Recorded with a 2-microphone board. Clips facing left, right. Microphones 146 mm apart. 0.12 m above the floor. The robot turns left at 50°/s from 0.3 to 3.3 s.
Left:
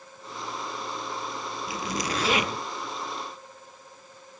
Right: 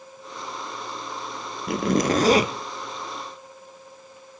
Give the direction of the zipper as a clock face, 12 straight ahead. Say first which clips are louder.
Right 11 dB; 3 o'clock.